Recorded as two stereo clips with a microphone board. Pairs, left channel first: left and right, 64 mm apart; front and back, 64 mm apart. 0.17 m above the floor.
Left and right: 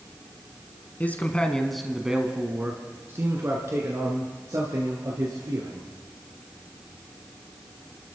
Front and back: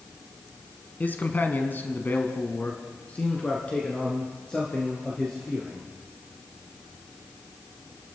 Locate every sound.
1.0 s a man speaking: 45° left, 1.4 m; by 5.9 s 75° right, 3.5 m